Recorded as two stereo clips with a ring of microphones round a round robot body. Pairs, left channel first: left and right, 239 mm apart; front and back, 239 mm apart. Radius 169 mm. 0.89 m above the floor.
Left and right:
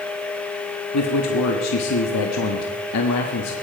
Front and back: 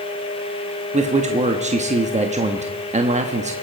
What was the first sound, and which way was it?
A man speaking, 120° left.